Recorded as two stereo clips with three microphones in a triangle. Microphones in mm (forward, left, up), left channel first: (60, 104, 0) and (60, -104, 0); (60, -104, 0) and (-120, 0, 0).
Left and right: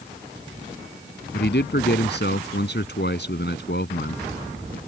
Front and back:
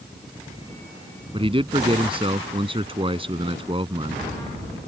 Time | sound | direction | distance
1.3 | a man speaking | 90° left | ?